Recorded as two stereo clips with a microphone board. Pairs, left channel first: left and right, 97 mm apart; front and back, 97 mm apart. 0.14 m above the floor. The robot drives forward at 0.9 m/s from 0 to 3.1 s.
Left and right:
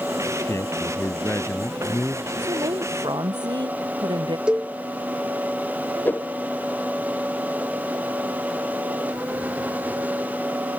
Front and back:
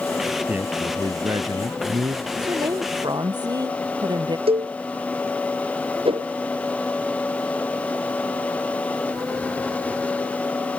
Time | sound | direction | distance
0.5 | a man speaking | 120° left | ?
2.4 | a woman speaking | 130° right | ?
4.5 | a cowbell | 170° right | ?
6.0 | a whoosh | 160° left | ?